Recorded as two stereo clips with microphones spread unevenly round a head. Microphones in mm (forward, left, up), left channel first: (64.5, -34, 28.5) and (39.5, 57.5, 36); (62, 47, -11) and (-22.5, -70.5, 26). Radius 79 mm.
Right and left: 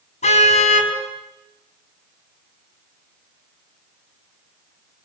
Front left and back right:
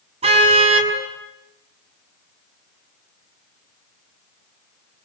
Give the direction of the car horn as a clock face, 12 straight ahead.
3 o'clock.